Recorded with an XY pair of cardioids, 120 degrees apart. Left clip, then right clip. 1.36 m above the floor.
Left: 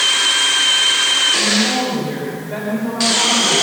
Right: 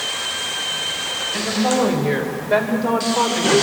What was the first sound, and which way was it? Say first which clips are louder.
A woman speaking: left 4 dB; 55° right.